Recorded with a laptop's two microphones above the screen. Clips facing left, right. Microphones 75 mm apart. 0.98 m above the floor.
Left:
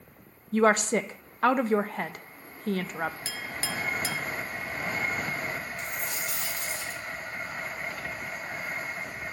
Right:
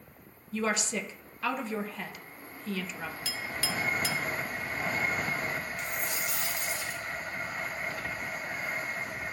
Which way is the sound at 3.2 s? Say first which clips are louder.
Even; 35° left (ahead or behind).